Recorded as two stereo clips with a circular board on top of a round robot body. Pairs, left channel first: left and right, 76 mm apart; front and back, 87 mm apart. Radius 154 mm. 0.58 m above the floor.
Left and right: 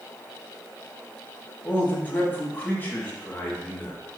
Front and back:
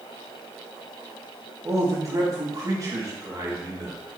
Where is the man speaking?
145° left, 1.7 m.